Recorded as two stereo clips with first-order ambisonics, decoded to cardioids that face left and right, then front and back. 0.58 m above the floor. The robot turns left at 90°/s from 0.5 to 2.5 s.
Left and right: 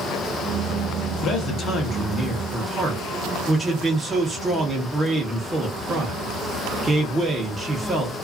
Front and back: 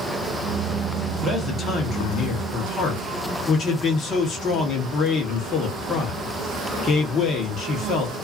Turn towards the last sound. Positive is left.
turn(degrees=-25)